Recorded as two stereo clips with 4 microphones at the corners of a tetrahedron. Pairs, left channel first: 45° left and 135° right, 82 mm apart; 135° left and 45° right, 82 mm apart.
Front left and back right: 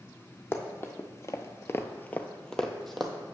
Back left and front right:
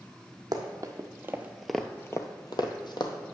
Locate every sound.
0.5 s running footsteps: 10° right, 1.1 m; by 3.1 s 135° left, 1.1 m